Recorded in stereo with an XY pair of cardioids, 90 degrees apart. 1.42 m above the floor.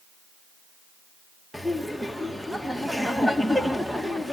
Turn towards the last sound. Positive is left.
turn(degrees=0)